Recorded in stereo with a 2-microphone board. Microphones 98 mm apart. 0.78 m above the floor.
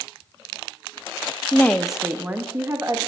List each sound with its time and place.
1.5 s a woman speaking: 20° left (ahead or behind), 0.8 m; by 3.0 s 30° right (ahead or behind), 1.9 m